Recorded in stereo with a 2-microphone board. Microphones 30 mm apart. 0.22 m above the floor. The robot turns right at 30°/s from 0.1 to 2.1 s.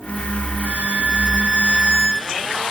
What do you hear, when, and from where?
0.7 s a violin: 60° right, 2.0 m; by 2.6 s 15° right, 2.0 m